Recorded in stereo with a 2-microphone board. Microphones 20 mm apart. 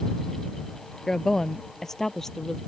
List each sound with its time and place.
1.1 s a woman speaking: 30° left (ahead or behind); by 2.6 s 20° left (ahead or behind)